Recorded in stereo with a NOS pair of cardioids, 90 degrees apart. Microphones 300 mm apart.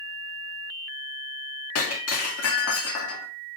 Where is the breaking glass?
60° left, 2.5 m.